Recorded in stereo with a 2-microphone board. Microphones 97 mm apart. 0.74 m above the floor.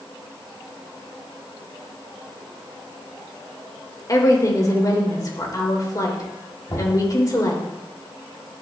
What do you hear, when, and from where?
4.1 s a woman speaking: 40° left (ahead or behind), 2.5 m
6.7 s knocking: 45° left (ahead or behind), 4 m